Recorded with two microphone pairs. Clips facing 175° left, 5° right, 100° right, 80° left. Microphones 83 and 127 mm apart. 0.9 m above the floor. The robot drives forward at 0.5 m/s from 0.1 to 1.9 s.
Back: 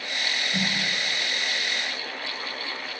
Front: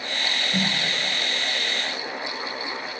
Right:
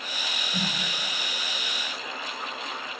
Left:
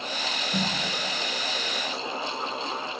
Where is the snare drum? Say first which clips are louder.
Front 3 dB, left 3 dB; 55° left, 1.8 m.